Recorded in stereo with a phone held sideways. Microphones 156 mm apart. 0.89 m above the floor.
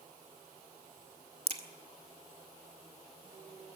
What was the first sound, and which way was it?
A crack, 40° right (ahead or behind).